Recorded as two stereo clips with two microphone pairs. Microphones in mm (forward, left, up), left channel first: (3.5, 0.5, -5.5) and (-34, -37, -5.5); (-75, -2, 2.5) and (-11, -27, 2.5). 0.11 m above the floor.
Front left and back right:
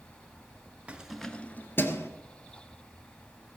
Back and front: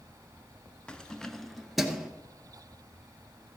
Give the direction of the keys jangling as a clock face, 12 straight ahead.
5 o'clock.